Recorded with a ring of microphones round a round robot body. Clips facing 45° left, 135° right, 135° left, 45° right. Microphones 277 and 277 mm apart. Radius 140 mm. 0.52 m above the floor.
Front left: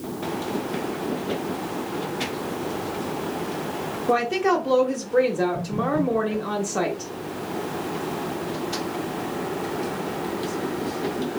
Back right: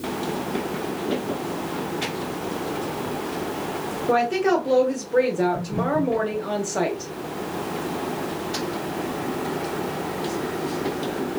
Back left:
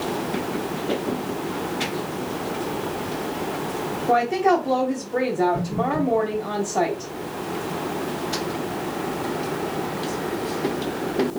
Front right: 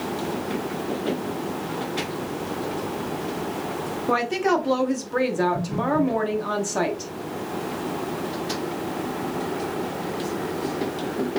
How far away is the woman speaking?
About 0.7 m.